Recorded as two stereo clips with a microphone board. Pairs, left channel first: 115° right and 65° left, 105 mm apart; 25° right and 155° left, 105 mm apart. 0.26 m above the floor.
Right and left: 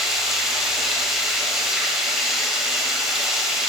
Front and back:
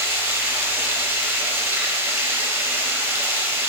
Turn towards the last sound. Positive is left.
turn(degrees=150)